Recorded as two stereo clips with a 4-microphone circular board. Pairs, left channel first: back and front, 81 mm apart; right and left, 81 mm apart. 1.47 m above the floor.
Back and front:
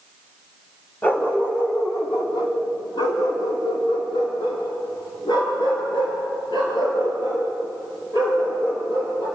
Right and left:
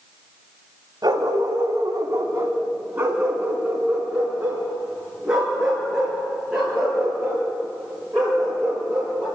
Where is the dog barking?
115° left, 3 m; by 9.2 s 175° right, 12 m.